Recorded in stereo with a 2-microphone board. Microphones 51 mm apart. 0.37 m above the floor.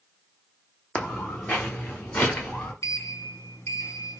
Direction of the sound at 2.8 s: 70° left (ahead or behind).